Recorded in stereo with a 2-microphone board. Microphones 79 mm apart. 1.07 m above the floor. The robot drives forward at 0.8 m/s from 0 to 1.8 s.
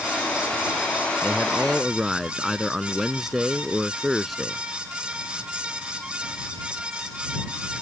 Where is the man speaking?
5° right (ahead or behind).